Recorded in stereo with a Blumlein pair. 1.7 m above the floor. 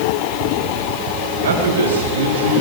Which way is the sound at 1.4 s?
65° right.